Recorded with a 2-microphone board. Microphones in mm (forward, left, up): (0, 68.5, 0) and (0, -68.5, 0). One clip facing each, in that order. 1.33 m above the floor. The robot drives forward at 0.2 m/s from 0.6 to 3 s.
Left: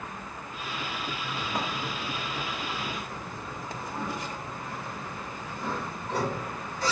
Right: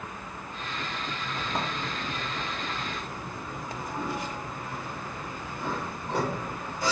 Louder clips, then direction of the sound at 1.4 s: Right 1 dB; 15° right (ahead or behind).